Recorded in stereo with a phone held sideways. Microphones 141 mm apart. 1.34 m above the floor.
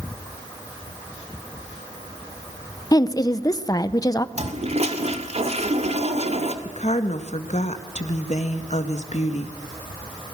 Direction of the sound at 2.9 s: 30° left (ahead or behind).